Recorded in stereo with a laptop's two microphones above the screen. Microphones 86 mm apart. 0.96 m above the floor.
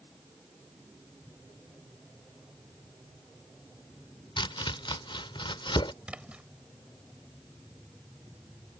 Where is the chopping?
75° left (ahead or behind).